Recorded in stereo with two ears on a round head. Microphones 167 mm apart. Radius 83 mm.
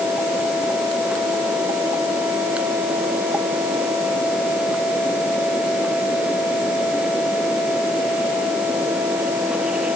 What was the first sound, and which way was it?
Only background noise.